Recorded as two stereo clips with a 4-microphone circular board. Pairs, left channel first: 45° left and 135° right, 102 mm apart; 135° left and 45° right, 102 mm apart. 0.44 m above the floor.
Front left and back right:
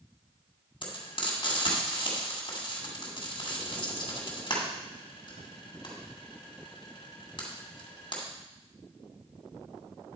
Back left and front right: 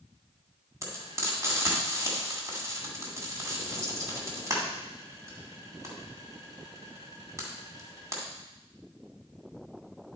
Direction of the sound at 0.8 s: 10° left.